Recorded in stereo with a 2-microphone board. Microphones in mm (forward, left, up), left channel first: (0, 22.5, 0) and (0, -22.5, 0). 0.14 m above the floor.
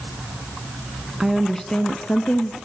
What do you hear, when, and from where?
1.2 s a woman speaking: 5° right (ahead or behind), 1.1 m; by 2.5 s 45° left (ahead or behind), 1.4 m